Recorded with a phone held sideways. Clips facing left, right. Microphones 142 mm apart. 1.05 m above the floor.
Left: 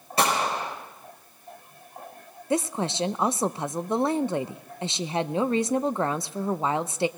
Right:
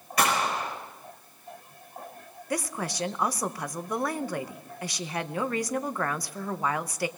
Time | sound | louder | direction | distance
0.2 | a gunshot | left 2 dB | 30° left (ahead or behind) | 4.5 m
2.5 | a woman speaking | left 6 dB | 25° left (ahead or behind) | 0.7 m